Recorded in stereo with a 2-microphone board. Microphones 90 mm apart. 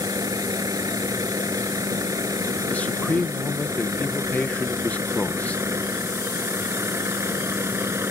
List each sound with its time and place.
0.0 s a vehicle: 45° right (ahead or behind); by 8.1 s 30° right (ahead or behind)
2.7 s a man speaking: 15° left (ahead or behind)